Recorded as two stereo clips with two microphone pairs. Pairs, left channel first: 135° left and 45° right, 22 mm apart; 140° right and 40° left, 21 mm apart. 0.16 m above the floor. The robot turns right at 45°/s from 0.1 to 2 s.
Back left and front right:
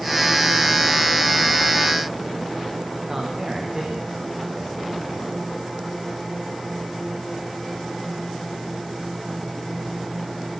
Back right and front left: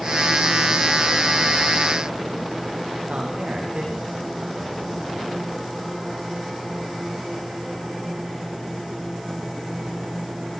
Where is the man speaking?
20° left, 9.5 m.